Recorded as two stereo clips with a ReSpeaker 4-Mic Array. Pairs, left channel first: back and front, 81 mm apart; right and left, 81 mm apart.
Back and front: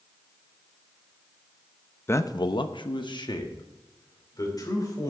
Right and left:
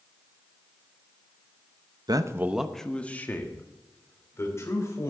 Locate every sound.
2.1 s a man speaking: 120° left, 0.6 m; by 5.1 s 140° right, 3.5 m